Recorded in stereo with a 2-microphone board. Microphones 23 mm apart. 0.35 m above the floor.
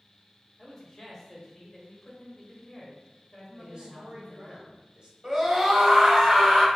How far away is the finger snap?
No finger snap in this recording.